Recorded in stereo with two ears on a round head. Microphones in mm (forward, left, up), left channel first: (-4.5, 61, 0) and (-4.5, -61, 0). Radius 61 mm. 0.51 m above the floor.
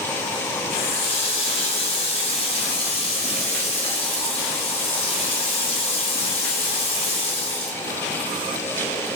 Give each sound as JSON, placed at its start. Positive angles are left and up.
{"t": 0.7, "sound": "a running tap", "side_deg": 45, "distance_m": 2.5}